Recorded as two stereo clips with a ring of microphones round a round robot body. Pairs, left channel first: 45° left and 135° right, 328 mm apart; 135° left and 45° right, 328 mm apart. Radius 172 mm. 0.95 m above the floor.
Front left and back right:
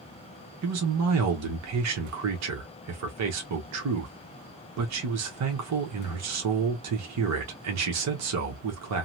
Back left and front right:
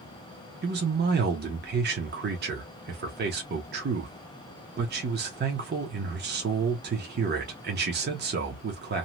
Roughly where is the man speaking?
Right.